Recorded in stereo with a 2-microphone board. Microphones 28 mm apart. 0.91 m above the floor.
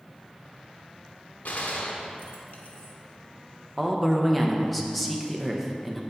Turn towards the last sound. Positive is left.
turn(degrees=0)  # may be behind; listen again after turning